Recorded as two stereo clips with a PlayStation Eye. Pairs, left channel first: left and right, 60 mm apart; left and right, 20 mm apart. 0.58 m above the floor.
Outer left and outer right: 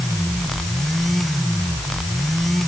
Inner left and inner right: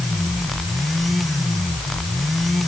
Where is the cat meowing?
I don't hear a cat meowing.